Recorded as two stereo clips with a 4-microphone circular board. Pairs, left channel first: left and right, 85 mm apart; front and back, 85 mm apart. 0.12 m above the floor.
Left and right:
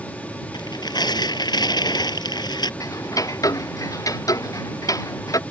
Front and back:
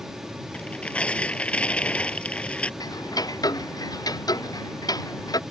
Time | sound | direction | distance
0.5 | tearing paper | 75° left | ?
2.8 | ticking | 40° left | ?